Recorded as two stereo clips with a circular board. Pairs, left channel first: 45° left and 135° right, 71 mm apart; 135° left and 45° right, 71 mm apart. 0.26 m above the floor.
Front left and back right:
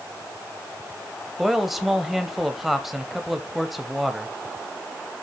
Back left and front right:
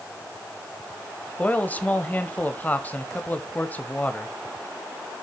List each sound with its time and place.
1.4 s a man speaking: 140° left, 0.9 m